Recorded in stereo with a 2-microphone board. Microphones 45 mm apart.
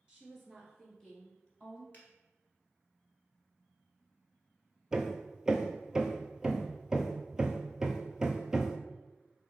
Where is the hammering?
15° right (ahead or behind), 0.5 m.